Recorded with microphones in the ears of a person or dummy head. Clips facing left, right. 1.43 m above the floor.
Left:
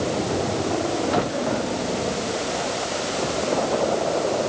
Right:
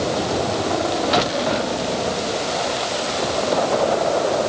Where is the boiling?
No boiling in this recording.